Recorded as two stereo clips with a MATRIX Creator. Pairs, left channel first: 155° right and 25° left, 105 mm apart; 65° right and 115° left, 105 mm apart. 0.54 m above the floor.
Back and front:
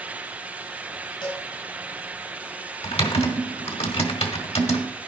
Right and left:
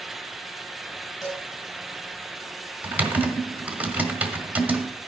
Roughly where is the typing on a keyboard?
Behind.